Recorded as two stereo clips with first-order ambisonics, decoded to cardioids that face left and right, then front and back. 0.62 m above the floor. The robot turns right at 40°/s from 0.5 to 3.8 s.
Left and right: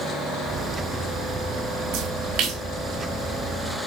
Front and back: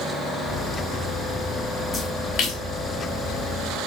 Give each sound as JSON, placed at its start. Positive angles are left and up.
{"t": 1.9, "sound": "a splash", "azimuth_deg": -70, "distance_m": 2.0}